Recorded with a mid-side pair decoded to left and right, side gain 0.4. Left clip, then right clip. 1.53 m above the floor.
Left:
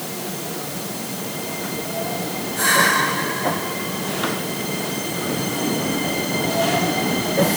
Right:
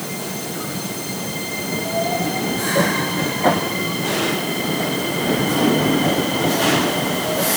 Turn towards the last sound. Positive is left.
No sound to turn to.